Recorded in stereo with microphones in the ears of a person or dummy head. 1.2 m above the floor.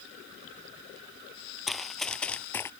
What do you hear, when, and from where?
1.7 s running footsteps: centre (ahead or behind); by 2.7 s 15° left (ahead or behind)